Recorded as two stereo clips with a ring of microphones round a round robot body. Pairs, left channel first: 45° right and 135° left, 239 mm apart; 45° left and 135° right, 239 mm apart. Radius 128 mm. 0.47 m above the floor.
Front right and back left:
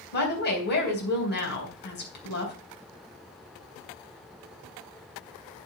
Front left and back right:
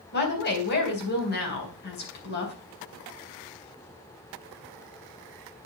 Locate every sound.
0.1 s a woman speaking: straight ahead, 3.5 m